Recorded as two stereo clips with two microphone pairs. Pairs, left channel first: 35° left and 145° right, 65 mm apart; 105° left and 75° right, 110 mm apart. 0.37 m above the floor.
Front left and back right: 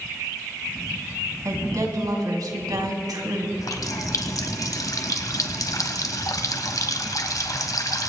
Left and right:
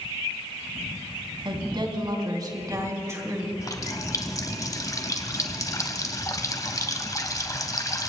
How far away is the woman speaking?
About 2.5 m.